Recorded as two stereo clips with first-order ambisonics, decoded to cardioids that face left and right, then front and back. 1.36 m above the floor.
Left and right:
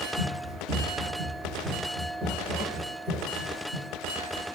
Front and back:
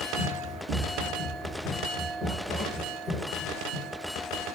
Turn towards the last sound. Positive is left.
turn(degrees=-140)